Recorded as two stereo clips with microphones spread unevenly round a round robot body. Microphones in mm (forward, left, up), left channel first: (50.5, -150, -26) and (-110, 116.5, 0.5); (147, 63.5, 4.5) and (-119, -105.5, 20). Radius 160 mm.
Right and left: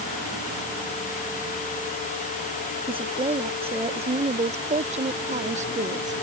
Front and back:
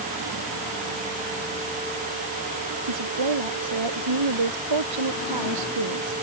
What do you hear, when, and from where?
2.9 s a woman speaking: 165° right; by 6.2 s 170° right